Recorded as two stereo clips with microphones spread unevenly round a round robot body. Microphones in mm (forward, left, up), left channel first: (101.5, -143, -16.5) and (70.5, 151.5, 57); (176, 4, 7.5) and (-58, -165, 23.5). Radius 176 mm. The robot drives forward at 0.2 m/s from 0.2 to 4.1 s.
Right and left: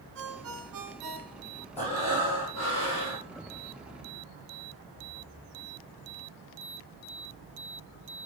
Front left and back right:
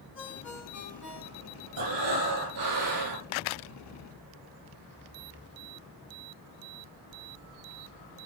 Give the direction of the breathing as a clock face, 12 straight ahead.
5 o'clock.